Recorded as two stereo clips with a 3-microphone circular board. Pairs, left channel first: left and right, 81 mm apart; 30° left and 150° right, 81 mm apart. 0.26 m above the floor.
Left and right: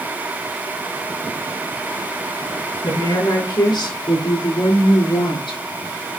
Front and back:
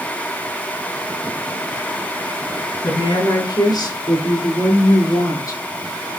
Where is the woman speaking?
60° left, 4.5 m; by 5.6 s 80° left, 4.5 m.